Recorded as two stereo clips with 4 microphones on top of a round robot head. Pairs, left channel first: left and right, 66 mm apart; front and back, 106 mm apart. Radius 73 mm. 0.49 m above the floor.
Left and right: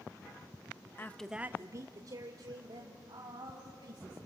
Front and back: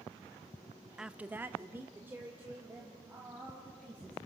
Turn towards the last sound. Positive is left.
turn(degrees=-105)